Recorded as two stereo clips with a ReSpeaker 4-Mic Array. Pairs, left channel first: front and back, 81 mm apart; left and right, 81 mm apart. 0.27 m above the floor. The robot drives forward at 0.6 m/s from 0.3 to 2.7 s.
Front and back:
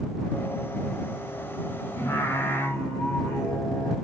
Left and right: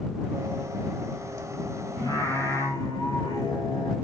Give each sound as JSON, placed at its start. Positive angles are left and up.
{"t": 2.0, "sound": "singing", "azimuth_deg": 50, "distance_m": 2.0}